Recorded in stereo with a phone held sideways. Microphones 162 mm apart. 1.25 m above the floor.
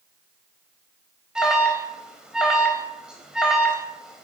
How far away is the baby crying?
I don't hear a baby crying.